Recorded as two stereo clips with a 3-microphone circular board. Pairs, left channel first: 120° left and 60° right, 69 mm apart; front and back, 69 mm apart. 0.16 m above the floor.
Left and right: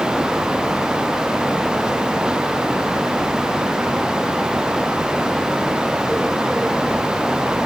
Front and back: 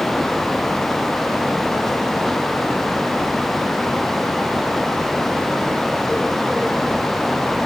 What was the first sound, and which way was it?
Only background noise.